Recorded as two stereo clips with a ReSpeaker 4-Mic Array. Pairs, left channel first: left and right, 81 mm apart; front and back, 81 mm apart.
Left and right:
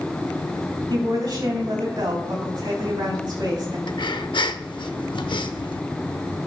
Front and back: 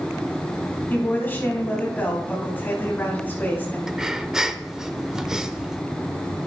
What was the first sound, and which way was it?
A woman speaking, 65° right.